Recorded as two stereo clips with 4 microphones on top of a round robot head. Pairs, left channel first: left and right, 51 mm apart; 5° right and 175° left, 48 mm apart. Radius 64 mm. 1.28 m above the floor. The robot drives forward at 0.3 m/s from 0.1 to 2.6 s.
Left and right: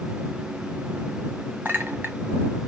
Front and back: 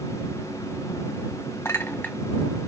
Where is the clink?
30° right, 0.5 m; by 2.2 s 65° right, 0.5 m.